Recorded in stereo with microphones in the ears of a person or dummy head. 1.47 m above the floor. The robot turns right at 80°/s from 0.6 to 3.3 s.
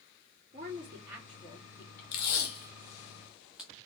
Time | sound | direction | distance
0.5 | a woman speaking | 50° right | 2.5 m
2.1 | tape being pulled | 65° left (ahead or behind) | 1.2 m